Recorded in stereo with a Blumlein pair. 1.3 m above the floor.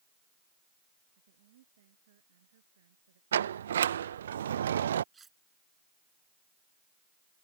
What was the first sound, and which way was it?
A woman speaking, 55° right.